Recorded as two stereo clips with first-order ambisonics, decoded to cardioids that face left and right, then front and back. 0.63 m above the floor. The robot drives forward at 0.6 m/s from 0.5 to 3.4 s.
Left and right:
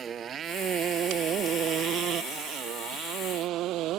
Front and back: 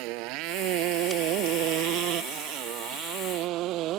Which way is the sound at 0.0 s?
155° right.